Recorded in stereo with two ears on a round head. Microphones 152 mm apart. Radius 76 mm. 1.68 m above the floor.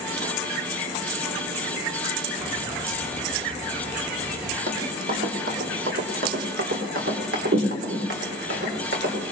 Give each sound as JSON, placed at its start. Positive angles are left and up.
{"t": 2.4, "sound": "a bird", "side_deg": -10, "distance_m": 1.9}
{"t": 4.7, "sound": "running footsteps", "side_deg": -45, "distance_m": 3.0}